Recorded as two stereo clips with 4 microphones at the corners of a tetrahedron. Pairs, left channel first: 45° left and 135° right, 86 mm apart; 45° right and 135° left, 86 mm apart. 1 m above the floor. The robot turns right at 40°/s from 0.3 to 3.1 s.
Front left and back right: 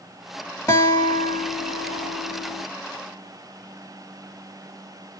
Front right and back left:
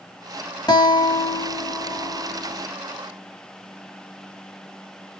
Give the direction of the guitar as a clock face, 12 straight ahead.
12 o'clock.